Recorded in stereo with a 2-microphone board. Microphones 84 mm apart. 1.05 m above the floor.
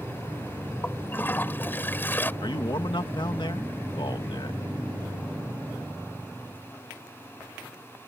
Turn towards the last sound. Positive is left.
turn(degrees=60)  # may be behind; listen again after turning